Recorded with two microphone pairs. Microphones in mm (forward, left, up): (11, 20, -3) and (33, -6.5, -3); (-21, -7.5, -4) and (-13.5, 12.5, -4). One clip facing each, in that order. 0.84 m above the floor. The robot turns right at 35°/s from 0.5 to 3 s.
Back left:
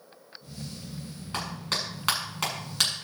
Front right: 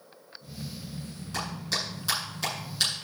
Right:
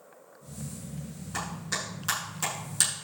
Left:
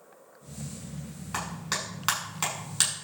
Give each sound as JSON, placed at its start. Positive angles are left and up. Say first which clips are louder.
{"t": 1.3, "sound": "a clap", "louder": "even, left 1 dB", "azimuth_deg": 80, "distance_m": 7.0}